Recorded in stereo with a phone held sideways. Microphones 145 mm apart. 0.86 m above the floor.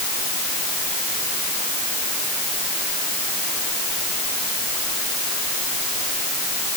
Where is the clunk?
No clunk in this recording.